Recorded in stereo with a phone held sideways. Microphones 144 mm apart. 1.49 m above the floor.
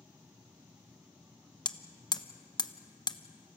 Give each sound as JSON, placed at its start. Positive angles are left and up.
{"t": 0.0, "sound": "a machine running", "side_deg": -10, "distance_m": 2.5}
{"t": 1.6, "sound": "hammering", "side_deg": 30, "distance_m": 0.9}